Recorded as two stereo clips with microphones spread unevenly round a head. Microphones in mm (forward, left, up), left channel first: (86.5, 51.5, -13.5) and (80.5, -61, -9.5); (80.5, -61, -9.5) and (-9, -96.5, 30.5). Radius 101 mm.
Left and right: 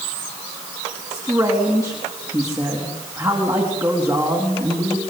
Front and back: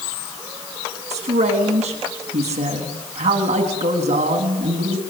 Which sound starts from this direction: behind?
A man speaking, at 1.1 s.